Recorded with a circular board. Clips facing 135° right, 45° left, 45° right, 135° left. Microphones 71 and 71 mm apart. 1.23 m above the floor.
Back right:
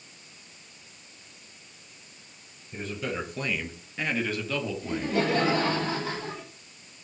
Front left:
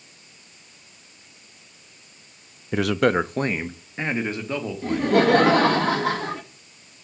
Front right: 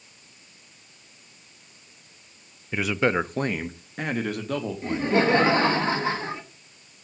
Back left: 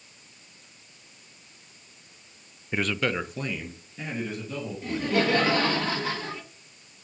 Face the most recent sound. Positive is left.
turn(degrees=15)